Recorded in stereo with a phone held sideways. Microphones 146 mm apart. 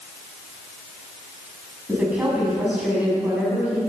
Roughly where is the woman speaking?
Centre.